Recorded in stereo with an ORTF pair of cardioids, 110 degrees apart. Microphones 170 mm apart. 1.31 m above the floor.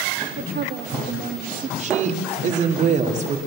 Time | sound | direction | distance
0.4 | a woman speaking | 65° right | 2.5 m
1.8 | a woman speaking | 45° right | 3.5 m